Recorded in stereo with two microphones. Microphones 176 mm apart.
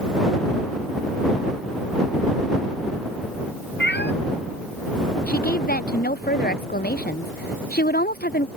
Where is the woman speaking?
60° left (ahead or behind).